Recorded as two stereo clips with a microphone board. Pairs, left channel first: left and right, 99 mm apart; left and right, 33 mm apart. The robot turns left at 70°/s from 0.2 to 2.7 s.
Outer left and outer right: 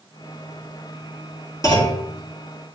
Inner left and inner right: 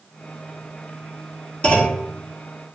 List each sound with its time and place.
1.6 s a clunk: 35° left (ahead or behind), 2.5 m; by 2.0 s 60° left (ahead or behind), 2.5 m